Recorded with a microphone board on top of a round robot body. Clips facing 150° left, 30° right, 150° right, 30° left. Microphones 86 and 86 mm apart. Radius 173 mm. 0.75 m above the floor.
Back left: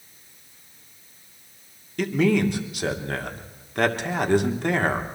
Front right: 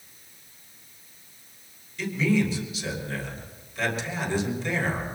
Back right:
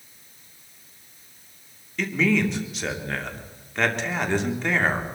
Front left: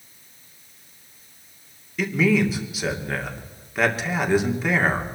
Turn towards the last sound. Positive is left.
turn(degrees=115)